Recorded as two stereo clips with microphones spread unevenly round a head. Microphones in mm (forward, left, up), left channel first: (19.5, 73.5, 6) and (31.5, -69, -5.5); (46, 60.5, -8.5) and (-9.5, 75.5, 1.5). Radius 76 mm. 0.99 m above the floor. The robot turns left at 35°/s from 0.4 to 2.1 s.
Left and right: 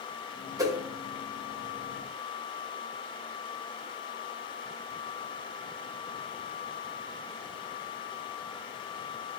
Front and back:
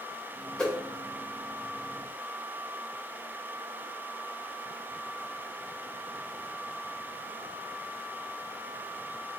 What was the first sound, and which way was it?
A whoosh, 55° right.